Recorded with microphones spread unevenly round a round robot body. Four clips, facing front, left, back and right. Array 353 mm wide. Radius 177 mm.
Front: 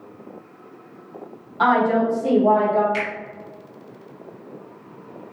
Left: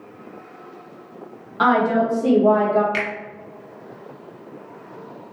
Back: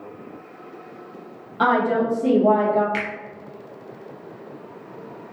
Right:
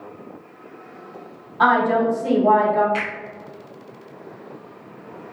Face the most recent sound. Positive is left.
turn(degrees=125)